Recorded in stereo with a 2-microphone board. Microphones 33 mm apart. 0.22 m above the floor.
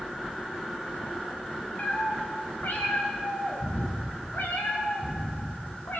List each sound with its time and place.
1.8 s a cat meowing: 55° left (ahead or behind), 5.5 m; by 6.0 s 85° left, 7 m